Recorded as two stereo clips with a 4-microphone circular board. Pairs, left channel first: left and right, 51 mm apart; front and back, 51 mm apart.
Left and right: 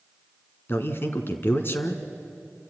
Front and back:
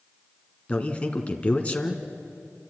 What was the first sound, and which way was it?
A man speaking, 60° left.